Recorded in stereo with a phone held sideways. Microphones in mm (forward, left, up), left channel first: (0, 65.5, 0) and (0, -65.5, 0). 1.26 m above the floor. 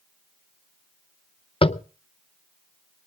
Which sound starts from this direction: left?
Tapping, at 1.6 s.